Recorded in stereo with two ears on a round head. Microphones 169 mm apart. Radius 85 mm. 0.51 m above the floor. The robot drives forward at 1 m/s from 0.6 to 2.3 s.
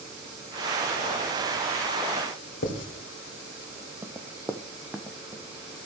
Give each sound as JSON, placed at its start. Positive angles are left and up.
{"t": 2.6, "sound": "writing", "side_deg": 65, "distance_m": 2.5}
{"t": 4.0, "sound": "running footsteps", "side_deg": -15, "distance_m": 0.7}